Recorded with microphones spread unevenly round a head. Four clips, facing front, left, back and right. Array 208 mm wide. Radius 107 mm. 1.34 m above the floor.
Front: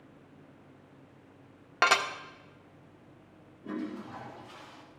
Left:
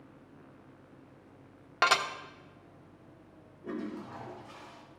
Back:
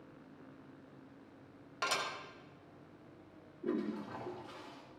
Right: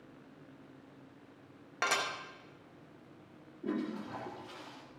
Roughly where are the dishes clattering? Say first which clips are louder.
Left 7 dB, front 11 dB; ahead.